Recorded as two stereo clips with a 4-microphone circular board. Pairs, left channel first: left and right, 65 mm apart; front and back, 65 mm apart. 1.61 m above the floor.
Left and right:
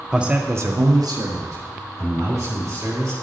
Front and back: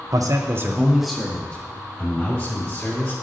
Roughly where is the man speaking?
Behind.